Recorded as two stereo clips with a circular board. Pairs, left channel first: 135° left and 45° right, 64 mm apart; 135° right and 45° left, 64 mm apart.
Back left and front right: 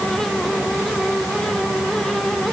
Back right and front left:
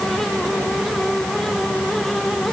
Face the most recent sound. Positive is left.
No sound to turn to.